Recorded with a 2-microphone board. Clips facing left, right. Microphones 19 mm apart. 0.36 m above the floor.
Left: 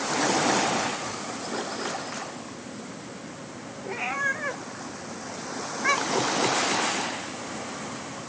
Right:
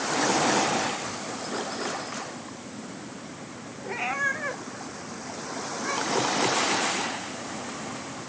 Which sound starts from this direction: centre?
A cat meowing, at 3.8 s.